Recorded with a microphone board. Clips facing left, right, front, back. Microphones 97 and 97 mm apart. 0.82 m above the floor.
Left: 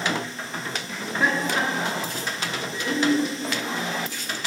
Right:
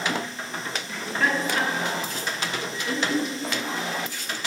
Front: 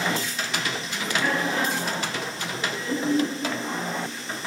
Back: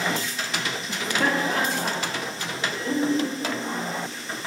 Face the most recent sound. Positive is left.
turn(degrees=130)